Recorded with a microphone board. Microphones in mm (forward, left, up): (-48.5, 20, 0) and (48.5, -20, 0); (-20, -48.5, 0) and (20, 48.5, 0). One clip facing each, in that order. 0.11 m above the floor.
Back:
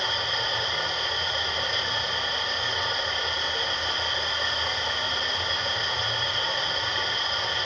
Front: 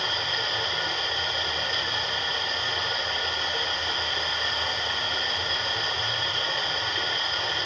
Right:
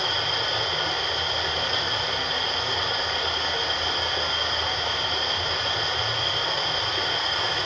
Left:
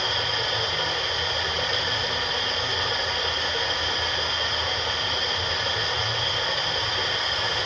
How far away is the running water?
About 8.5 m.